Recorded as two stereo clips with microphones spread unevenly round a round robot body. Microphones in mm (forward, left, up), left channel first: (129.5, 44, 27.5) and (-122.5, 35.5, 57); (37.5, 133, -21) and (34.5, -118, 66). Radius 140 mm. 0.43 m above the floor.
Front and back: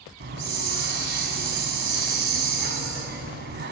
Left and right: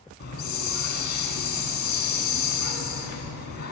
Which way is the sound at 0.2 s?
135° left.